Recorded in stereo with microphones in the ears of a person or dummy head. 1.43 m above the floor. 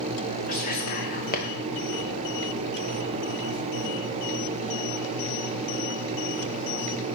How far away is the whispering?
About 1.2 m.